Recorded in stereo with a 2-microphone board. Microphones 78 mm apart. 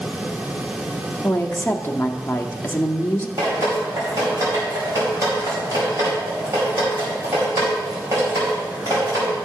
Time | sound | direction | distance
1.2 | a woman speaking | 25° left (ahead or behind) | 0.9 m
3.4 | dripping | 35° right (ahead or behind) | 4.5 m